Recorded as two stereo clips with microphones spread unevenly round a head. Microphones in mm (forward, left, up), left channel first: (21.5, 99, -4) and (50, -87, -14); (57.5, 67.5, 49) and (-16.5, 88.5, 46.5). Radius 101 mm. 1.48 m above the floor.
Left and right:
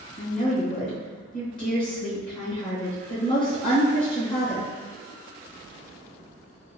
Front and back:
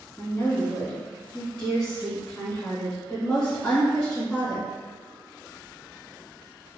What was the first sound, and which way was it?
A woman speaking, 60° left.